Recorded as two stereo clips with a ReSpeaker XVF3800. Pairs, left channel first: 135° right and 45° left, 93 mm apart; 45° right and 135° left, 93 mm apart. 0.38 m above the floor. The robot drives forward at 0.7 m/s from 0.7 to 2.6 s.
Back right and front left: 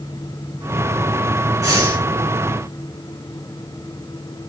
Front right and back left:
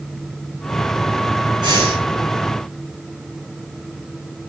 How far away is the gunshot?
I don't hear a gunshot.